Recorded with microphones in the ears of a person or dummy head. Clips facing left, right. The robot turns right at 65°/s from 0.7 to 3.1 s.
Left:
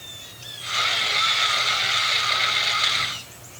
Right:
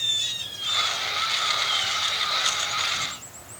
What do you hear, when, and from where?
Only background noise.